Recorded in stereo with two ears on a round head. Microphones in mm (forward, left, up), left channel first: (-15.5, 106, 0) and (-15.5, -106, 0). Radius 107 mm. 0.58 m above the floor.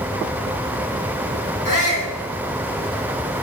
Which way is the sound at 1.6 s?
50° left (ahead or behind).